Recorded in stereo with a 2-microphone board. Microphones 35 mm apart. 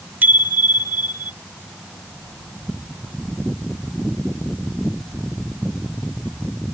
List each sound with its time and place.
0.2 s a bicycle bell: 75° right (ahead or behind); by 1.3 s 80° right